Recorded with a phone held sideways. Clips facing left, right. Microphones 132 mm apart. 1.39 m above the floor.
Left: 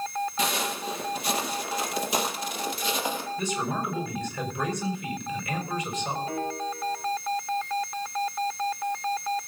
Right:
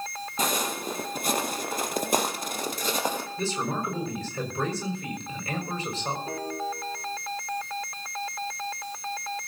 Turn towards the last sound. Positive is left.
turn(degrees=-35)  # may be behind; listen again after turning